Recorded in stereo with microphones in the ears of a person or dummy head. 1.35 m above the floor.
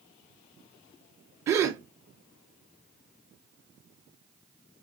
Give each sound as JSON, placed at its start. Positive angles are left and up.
{"t": 1.5, "sound": "a gasp", "side_deg": -20, "distance_m": 0.6}